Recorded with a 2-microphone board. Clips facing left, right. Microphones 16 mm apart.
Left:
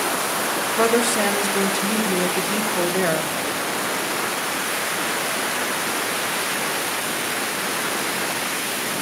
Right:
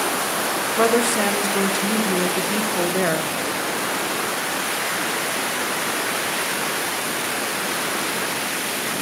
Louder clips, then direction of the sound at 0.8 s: Right 1 dB; 5° left (ahead or behind).